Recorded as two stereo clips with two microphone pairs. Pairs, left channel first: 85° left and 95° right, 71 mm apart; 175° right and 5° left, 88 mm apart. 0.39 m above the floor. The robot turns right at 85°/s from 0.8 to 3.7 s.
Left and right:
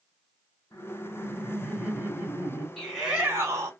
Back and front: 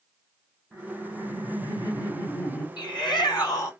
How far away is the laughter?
About 1.2 m.